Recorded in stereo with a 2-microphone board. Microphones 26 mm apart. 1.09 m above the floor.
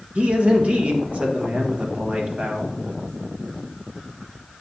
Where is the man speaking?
55° right (ahead or behind), 1.4 m.